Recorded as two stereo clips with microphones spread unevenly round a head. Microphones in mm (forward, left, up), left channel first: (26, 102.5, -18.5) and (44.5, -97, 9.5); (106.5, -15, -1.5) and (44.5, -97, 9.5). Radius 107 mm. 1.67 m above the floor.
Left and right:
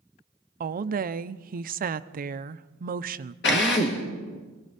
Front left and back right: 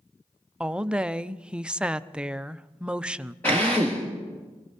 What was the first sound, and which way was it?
A woman speaking, 50° right.